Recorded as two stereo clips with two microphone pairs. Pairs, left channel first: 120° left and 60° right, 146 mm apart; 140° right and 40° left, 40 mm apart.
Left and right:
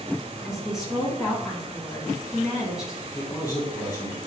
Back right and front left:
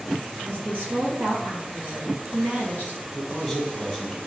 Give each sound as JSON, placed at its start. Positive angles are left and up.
{"t": 0.4, "sound": "a woman speaking", "azimuth_deg": 25, "distance_m": 1.8}
{"t": 3.1, "sound": "a man speaking", "azimuth_deg": 140, "distance_m": 1.4}